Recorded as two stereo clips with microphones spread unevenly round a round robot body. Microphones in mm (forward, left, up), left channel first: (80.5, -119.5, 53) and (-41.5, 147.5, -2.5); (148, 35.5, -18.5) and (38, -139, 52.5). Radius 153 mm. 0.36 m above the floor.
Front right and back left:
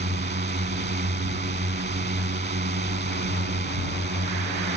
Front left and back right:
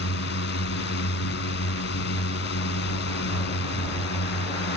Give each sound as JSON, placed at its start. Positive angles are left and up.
{"t": 0.0, "sound": "a drone", "azimuth_deg": 55}